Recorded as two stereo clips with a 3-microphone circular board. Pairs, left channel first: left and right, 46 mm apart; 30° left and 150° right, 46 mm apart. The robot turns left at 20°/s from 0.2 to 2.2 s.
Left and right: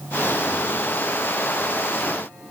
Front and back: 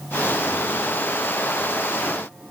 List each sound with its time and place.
Only background noise.